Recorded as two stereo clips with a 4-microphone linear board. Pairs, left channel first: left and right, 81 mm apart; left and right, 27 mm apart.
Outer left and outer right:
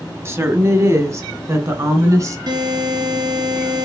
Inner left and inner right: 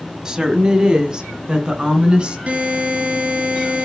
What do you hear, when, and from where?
0.2 s a woman speaking: 30° right (ahead or behind), 1.4 m; by 2.4 s 40° right (ahead or behind), 2.5 m
2.5 s a buzzer: 55° right (ahead or behind), 4.5 m